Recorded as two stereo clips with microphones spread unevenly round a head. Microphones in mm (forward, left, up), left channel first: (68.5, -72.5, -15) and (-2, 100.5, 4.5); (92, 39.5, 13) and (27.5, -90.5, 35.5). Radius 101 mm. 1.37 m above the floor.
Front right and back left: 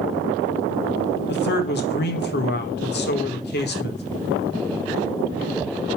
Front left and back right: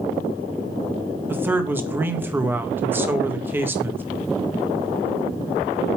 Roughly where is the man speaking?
Ahead right.